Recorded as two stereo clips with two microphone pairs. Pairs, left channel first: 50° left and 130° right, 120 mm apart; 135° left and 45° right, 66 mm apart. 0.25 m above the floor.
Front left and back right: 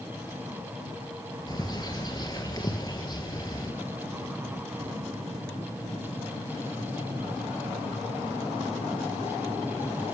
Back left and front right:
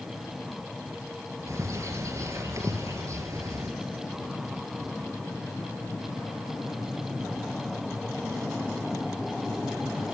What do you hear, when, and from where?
1.5 s a bird: 10° right, 1.5 m